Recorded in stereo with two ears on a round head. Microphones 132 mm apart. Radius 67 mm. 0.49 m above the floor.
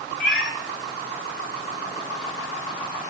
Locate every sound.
0.2 s a cat meowing: 75° left (ahead or behind), 3 m